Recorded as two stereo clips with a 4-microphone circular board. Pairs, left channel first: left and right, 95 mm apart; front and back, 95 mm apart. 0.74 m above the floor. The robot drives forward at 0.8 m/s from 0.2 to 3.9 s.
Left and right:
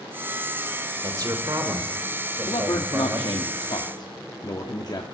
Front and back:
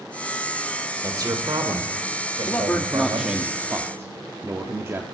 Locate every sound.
1.0 s a man speaking: 135° right, 2 m; by 3.3 s 155° right, 3.5 m
2.5 s a man speaking: 60° left, 1.3 m; by 5.0 s 120° left, 1.3 m